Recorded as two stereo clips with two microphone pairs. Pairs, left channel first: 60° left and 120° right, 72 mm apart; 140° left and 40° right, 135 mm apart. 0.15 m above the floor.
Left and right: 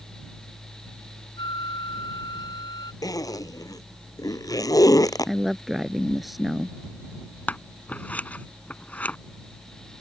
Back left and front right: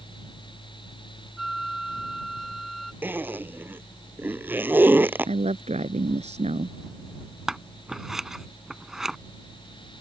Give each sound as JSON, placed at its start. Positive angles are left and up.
{"t": 1.4, "sound": "a flute", "azimuth_deg": 50}
{"t": 3.0, "sound": "a zipper", "azimuth_deg": 35}
{"t": 5.3, "sound": "a woman speaking", "azimuth_deg": -35}
{"t": 7.5, "sound": "scissors", "azimuth_deg": 40}